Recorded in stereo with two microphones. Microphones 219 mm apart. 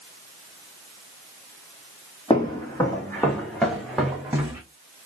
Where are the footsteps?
20° left (ahead or behind), 2.5 m; by 4.6 s 10° right (ahead or behind), 3 m.